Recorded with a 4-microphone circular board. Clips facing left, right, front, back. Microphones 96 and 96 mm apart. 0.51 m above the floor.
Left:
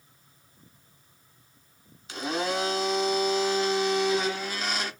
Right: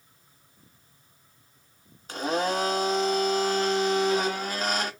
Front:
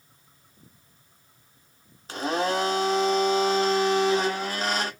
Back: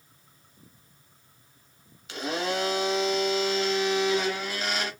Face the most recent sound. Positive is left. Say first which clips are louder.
# right 3 dB, front 4 dB
turn(degrees=-50)